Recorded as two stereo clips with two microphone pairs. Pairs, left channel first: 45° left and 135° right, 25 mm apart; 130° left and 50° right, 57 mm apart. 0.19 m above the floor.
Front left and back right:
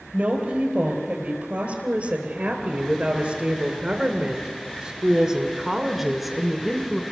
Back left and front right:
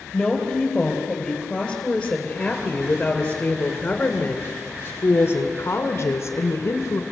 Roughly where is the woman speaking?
Behind right.